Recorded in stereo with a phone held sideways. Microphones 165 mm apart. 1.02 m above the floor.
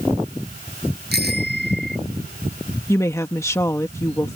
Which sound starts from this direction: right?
A bicycle bell, at 1.1 s.